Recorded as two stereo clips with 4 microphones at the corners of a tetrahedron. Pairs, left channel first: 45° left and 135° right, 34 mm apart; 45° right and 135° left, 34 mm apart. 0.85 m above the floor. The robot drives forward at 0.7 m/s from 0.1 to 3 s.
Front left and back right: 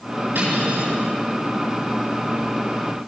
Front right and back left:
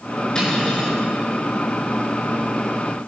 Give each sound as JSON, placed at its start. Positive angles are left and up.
{"t": 0.3, "sound": "cutlery clinking", "azimuth_deg": -115, "distance_m": 6.0}